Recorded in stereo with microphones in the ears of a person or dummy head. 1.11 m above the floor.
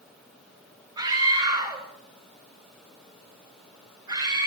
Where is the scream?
25° right (ahead or behind), 5 m.